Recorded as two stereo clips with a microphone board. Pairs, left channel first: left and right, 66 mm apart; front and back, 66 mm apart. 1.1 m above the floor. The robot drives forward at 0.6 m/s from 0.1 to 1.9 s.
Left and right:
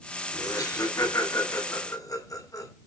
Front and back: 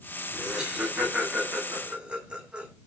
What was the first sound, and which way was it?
Laughter, 100° left.